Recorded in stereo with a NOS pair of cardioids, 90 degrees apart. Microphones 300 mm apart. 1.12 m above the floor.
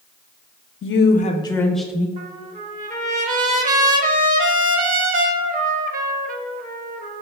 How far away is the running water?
No running water in this recording.